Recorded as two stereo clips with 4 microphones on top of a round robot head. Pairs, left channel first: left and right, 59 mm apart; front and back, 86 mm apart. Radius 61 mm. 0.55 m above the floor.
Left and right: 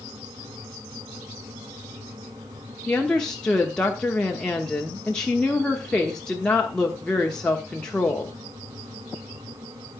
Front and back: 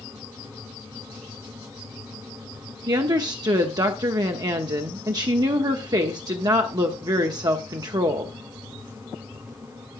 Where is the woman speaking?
165° left, 1.1 m.